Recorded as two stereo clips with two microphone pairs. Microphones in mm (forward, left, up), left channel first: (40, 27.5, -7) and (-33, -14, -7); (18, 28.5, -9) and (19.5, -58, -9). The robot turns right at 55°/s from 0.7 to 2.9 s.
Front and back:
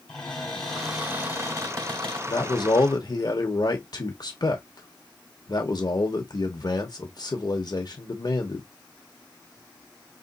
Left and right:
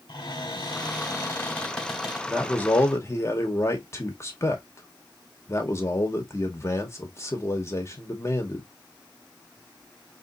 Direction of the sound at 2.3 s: 5° left.